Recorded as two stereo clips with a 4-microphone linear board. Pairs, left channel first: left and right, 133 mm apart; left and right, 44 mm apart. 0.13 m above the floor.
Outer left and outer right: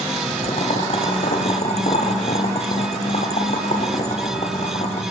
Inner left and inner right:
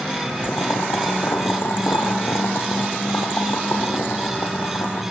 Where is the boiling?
55° left (ahead or behind), 2.5 m.